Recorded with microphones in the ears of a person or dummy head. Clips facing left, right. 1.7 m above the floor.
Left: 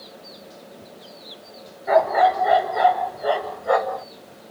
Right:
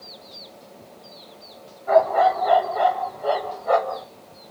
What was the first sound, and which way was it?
A dog barking, 20° left (ahead or behind).